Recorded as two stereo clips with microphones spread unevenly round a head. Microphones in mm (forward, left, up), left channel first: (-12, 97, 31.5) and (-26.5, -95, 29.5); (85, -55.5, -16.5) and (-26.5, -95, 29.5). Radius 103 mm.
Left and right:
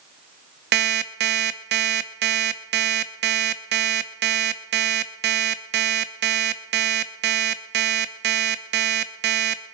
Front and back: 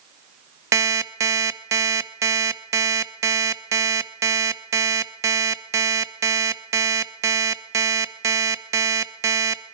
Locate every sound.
0.7 s an alarm clock: 120° right, 0.7 m